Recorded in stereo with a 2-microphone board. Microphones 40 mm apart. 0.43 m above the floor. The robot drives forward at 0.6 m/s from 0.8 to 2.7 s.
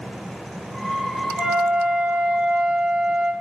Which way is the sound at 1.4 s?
20° right (ahead or behind).